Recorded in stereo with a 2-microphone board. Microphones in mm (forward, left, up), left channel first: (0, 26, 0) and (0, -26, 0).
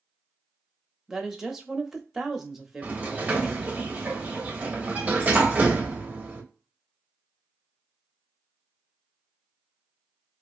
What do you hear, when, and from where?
1.1 s a woman speaking: 5° right (ahead or behind), 0.6 m
2.8 s a sliding door: 30° right (ahead or behind), 0.7 m